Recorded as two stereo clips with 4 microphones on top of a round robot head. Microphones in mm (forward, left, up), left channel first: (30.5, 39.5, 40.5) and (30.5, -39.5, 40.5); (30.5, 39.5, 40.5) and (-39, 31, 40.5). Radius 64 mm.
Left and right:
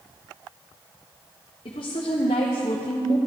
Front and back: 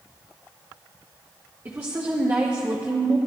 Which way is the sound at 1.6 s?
125° left.